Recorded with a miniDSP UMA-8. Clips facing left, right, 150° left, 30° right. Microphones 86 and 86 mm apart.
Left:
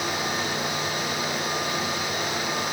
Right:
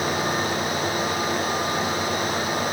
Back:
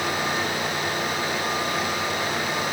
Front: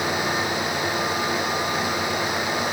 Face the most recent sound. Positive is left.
No sound to turn to.